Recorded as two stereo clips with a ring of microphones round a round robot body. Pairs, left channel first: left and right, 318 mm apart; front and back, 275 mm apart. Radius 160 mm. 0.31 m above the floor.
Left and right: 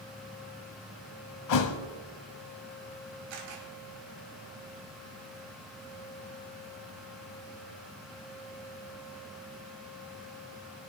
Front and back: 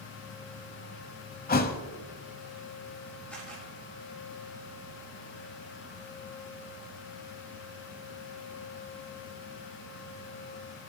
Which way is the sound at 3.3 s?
85° right.